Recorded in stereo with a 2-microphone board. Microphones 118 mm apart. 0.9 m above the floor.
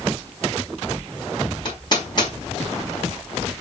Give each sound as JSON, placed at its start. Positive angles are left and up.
{"t": 1.6, "sound": "hammering", "side_deg": 35, "distance_m": 4.5}